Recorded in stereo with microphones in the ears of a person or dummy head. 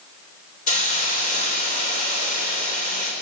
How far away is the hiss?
About 4 m.